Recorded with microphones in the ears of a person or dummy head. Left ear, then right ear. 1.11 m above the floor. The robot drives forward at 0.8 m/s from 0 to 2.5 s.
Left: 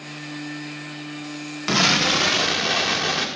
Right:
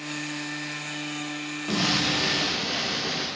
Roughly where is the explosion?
Left.